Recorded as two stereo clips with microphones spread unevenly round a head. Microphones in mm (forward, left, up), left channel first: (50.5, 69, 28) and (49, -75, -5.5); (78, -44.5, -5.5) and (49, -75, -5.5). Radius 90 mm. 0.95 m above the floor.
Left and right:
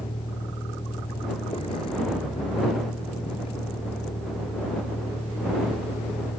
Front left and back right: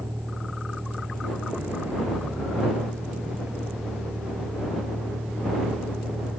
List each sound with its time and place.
0.0 s a vehicle: 150° left